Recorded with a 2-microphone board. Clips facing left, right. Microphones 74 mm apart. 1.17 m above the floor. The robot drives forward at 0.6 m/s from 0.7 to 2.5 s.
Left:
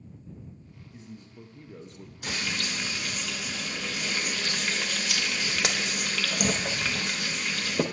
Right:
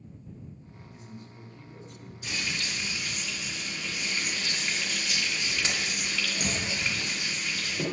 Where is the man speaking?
25° left (ahead or behind), 0.9 m; by 2.1 s 40° left (ahead or behind), 0.6 m.